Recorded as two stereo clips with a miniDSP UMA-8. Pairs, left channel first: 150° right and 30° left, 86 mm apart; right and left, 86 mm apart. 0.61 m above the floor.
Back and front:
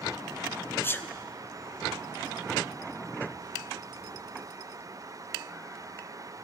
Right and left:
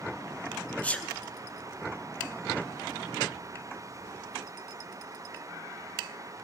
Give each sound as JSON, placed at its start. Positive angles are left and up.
{"t": 0.8, "sound": "a sneeze", "azimuth_deg": -145, "distance_m": 0.6}